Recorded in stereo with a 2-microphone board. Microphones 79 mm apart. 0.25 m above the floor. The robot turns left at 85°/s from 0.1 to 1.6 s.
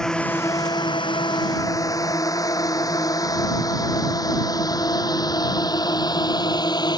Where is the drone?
5° left (ahead or behind); by 7.0 s 65° left (ahead or behind).